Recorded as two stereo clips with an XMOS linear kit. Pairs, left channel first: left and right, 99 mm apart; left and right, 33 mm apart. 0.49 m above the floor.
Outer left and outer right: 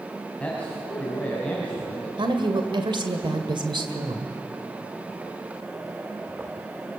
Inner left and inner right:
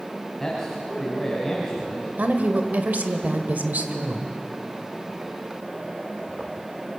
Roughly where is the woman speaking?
Right.